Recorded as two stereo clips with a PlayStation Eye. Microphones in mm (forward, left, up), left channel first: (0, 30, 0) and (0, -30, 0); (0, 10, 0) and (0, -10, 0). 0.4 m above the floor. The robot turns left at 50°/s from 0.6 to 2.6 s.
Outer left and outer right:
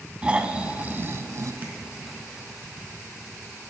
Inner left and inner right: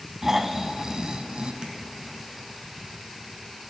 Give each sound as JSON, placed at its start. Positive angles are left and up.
{"t": 0.2, "sound": "snoring", "azimuth_deg": -20, "distance_m": 0.7}
{"t": 1.6, "sound": "tapping", "side_deg": -30, "distance_m": 1.6}